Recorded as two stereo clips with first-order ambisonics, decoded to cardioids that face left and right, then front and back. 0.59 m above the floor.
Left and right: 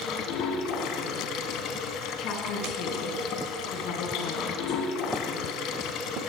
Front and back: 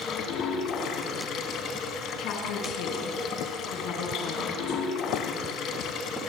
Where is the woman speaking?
45° left, 6.5 m.